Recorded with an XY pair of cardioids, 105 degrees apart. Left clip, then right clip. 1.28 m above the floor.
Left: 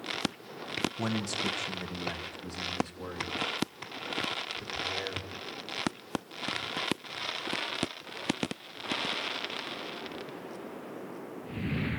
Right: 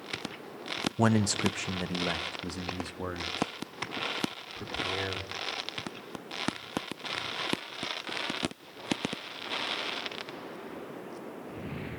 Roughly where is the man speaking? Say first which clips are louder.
Right 5 dB; ahead right.